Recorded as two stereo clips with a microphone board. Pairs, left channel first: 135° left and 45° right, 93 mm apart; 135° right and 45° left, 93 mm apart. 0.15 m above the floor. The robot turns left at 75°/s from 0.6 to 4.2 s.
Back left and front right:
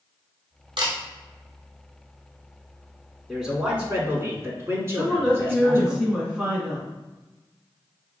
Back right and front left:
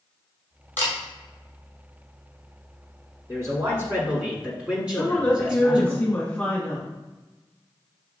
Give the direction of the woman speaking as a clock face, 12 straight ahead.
4 o'clock.